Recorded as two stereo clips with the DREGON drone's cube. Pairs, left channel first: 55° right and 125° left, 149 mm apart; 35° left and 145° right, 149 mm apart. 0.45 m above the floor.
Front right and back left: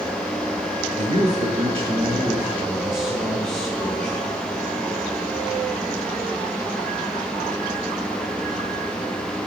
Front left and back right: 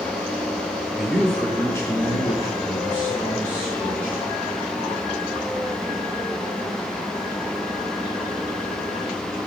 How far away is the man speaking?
About 1.4 m.